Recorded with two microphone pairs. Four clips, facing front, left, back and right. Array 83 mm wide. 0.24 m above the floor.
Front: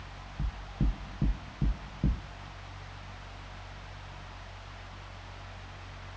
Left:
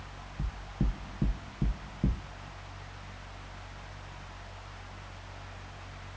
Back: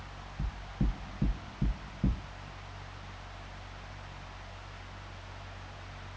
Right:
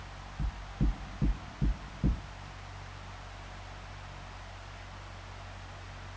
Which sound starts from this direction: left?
Knocking, at 0.4 s.